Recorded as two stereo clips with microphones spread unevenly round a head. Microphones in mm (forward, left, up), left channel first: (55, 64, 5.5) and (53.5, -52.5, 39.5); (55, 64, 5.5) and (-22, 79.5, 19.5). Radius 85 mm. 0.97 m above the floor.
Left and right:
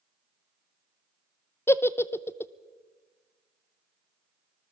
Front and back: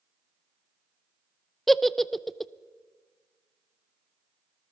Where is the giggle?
60° left, 0.7 m.